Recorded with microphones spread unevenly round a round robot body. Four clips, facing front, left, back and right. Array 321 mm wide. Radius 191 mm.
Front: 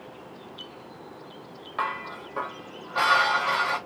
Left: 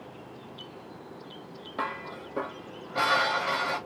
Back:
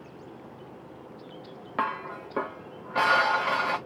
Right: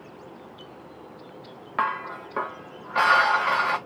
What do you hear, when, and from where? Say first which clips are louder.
1.8 s dishes clattering: right 7 dB, even; 165° left, 1.0 m